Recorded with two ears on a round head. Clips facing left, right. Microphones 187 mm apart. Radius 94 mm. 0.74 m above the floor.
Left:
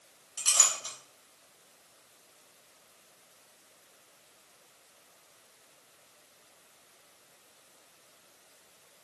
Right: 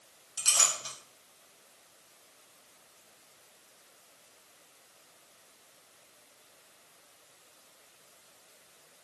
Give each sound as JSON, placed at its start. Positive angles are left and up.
{"t": 0.4, "sound": "a clink", "side_deg": -10, "distance_m": 1.5}